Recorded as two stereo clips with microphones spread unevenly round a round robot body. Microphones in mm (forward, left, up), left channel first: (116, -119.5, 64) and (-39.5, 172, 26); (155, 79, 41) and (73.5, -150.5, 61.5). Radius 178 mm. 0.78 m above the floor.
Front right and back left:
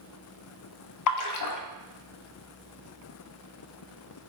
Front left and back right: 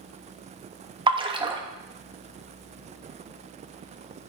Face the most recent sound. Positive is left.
turn(degrees=-40)